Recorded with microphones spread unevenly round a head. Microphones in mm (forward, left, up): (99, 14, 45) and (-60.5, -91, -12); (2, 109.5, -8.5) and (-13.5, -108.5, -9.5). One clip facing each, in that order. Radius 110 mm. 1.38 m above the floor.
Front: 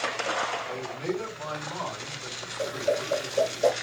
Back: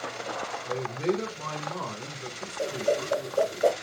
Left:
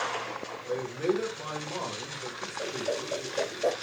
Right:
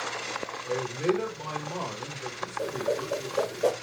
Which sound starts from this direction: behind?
A man speaking, at 0.6 s.